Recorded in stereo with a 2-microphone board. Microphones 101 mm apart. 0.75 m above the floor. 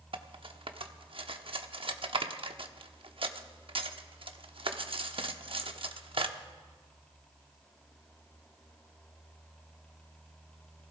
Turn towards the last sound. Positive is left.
turn(degrees=-60)  # may be behind; listen again after turning